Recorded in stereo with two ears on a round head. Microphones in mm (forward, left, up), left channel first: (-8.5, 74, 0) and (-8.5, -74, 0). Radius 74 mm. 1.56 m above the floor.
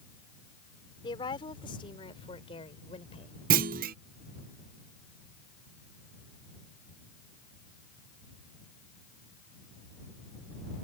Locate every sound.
1.0 s a woman speaking: 25° left (ahead or behind); by 3.4 s 30° left (ahead or behind)
3.5 s a clunk: 55° right (ahead or behind)